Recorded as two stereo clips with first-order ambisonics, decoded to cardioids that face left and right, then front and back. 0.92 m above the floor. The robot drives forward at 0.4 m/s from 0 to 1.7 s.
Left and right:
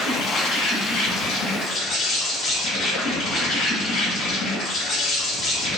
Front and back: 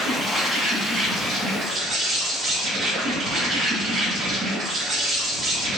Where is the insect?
95° left, 1.6 m; by 5.8 s 125° left, 1.7 m.